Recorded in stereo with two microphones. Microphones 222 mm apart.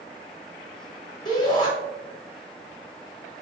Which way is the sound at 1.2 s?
20° left (ahead or behind).